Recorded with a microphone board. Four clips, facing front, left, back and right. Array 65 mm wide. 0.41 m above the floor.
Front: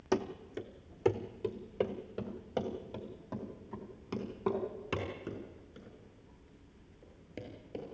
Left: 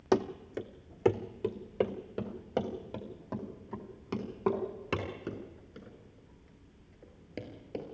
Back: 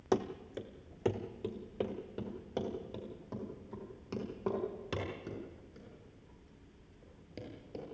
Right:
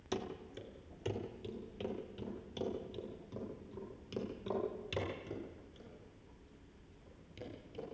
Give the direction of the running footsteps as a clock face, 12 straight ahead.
9 o'clock.